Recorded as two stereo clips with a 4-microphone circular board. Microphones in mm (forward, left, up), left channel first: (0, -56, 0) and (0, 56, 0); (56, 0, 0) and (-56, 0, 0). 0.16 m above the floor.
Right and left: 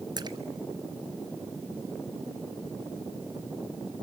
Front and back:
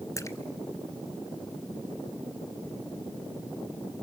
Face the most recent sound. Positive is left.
turn(degrees=55)